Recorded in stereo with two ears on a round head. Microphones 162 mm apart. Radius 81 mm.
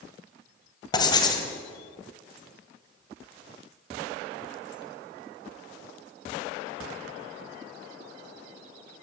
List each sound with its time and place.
0.9 s writing: 25° left (ahead or behind), 2 m